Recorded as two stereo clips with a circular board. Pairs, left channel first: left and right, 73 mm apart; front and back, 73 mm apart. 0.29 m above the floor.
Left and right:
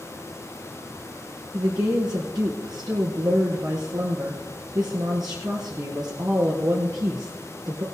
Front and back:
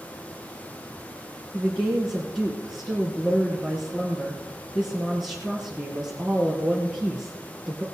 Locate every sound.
1.5 s a woman speaking: 75° right, 4 m